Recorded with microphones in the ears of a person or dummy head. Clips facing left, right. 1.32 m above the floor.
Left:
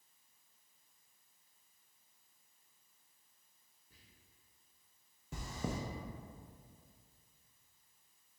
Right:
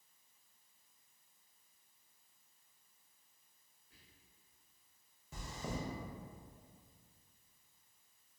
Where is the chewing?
55° left (ahead or behind), 0.5 m.